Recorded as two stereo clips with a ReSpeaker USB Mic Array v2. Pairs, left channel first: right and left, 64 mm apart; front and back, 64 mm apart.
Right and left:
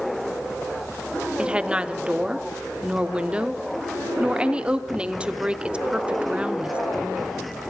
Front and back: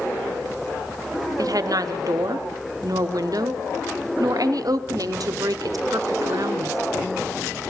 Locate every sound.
1.4 s a woman speaking: 160° left, 0.6 m